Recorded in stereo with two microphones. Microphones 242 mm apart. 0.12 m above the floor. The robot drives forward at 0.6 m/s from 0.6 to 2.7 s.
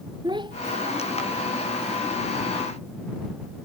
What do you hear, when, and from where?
0.2 s a child speaking: 20° right (ahead or behind)